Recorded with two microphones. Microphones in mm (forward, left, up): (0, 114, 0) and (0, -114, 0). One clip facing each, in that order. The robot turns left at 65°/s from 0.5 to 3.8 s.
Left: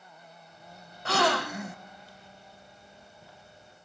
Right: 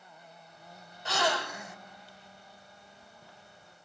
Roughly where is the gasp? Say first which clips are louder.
Left 5 dB; left.